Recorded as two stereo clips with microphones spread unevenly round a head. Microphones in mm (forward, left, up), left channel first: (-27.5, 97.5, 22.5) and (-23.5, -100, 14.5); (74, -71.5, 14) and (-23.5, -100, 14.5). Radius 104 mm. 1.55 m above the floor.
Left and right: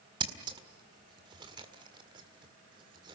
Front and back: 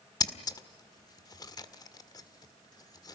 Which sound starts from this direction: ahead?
Scissors, at 0.2 s.